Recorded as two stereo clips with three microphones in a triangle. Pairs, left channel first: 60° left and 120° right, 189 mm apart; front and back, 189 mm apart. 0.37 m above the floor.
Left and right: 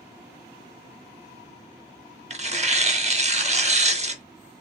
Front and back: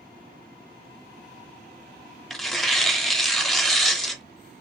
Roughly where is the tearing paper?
Right.